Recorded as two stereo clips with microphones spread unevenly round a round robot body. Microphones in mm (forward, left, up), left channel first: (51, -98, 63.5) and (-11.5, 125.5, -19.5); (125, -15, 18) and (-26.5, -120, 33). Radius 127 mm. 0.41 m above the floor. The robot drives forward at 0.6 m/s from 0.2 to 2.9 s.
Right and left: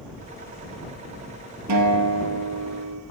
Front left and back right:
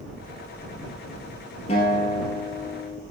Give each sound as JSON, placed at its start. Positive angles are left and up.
{"t": 1.7, "sound": "a guitar", "azimuth_deg": 105, "distance_m": 2.0}